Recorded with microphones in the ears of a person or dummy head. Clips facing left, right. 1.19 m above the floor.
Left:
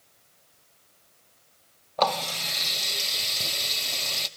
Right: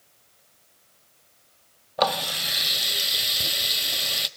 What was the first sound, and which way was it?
A running tap, 15° right (ahead or behind).